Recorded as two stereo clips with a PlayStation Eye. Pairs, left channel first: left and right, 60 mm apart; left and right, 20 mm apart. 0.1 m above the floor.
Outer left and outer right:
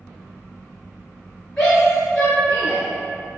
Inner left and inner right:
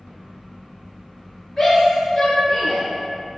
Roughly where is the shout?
Centre.